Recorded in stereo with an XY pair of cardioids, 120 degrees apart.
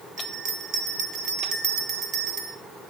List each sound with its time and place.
0.2 s a bell: 55° right, 1.2 m